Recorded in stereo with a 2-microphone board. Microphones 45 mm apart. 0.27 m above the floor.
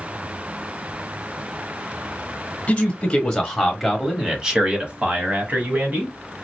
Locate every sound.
2.7 s a man speaking: 30° left (ahead or behind), 1.1 m; by 6.1 s 40° right (ahead or behind), 1.7 m